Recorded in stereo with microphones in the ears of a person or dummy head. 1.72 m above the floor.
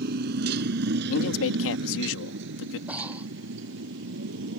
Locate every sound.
0.0 s a motorcycle: 50° right (ahead or behind); by 4.6 s 70° right (ahead or behind)
1.1 s a man speaking: 75° left (ahead or behind)
2.9 s breathing: 10° right (ahead or behind)